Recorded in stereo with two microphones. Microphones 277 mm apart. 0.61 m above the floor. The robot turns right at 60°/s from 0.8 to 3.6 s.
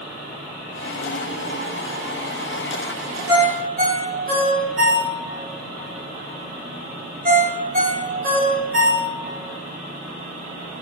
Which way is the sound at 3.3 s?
10° right (ahead or behind).